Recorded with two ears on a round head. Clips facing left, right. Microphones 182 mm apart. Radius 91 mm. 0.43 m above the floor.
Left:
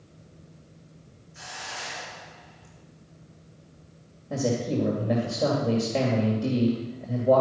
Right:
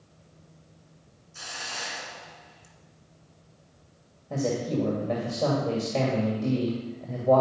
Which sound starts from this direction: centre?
A man speaking, at 4.3 s.